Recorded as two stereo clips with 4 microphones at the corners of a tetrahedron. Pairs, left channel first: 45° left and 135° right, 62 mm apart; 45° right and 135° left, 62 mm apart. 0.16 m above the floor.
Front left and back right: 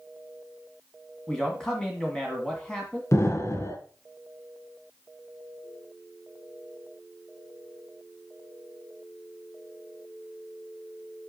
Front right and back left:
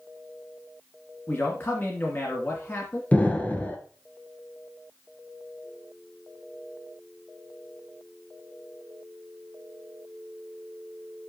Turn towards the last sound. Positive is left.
turn(degrees=20)